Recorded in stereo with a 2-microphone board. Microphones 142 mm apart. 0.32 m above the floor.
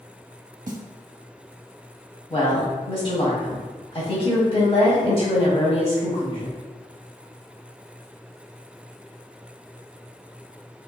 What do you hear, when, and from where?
0.7 s a snare drum: 65° right (ahead or behind), 0.6 m
2.3 s a woman speaking: 40° left (ahead or behind), 1.3 m